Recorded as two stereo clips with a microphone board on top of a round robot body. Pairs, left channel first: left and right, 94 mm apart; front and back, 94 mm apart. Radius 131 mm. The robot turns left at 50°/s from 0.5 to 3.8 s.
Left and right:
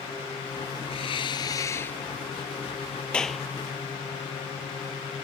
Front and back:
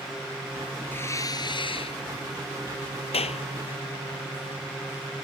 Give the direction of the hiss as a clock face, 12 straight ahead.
10 o'clock.